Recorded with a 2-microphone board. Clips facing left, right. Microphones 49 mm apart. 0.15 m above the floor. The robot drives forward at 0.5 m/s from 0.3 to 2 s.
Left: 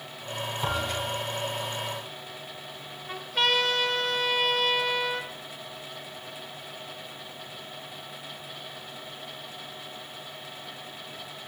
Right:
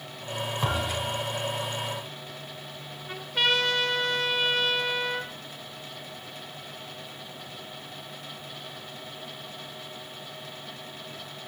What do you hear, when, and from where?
0.6 s a thud: 60° right (ahead or behind), 8.5 m
3.1 s a trumpet: centre (ahead or behind), 2.5 m